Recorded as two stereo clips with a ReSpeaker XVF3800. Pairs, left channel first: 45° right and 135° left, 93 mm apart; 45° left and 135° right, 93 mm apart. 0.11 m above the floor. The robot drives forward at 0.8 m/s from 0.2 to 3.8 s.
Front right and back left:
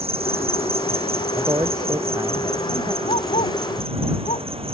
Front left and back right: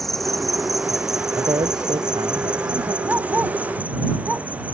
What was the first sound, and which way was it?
An insect, 135° left.